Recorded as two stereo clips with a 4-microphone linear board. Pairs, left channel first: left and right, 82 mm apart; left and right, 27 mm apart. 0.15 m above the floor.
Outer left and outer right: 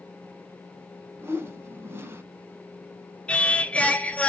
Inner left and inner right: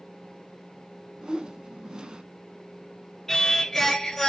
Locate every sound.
1.2 s a whoosh: 30° right (ahead or behind), 0.5 m
3.3 s singing: 15° left (ahead or behind), 0.6 m